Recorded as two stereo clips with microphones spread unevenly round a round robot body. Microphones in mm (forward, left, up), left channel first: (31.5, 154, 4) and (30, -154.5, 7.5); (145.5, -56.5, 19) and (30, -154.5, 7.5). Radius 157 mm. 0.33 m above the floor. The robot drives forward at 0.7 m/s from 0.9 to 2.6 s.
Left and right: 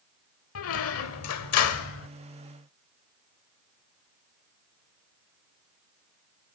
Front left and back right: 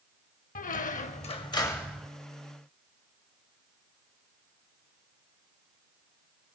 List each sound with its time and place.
0.6 s a squeak: 60° left, 0.8 m; by 2.1 s 135° left, 0.9 m